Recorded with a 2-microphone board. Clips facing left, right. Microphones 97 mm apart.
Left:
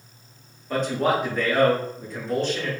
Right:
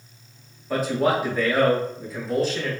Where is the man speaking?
Centre (ahead or behind), 0.8 m.